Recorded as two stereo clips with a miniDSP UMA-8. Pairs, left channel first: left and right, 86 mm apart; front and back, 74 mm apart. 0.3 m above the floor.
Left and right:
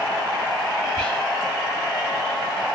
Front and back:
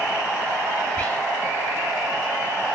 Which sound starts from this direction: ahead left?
Whispering, at 1.0 s.